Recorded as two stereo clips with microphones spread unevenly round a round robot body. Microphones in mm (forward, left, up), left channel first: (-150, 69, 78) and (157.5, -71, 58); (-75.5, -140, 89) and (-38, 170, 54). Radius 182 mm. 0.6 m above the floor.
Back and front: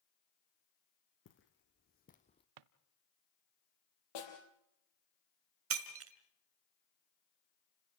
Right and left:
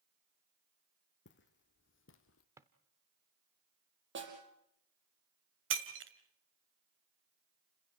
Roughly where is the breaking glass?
Ahead left.